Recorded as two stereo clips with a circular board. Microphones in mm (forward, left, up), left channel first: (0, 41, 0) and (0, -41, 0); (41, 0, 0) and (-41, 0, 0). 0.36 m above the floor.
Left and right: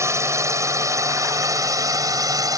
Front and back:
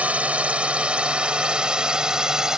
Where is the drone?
115° right; by 2.6 s 100° right.